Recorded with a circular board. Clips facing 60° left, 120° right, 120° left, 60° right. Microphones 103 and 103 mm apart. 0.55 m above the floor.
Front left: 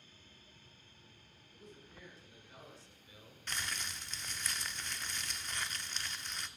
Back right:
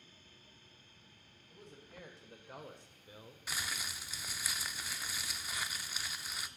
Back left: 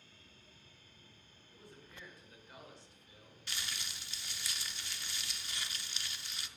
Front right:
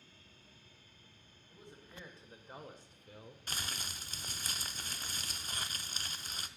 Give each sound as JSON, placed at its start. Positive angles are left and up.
{"t": 1.5, "sound": "a man speaking", "azimuth_deg": -130, "distance_m": 2.5}
{"t": 3.5, "sound": "crumpling", "azimuth_deg": -40, "distance_m": 0.6}